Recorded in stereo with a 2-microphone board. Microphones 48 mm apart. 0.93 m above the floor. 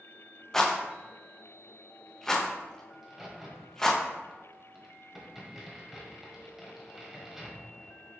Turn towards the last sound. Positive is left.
turn(degrees=-10)  # may be behind; listen again after turning